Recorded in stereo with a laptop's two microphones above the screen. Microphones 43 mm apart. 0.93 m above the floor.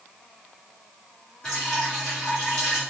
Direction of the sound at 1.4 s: 10° left (ahead or behind).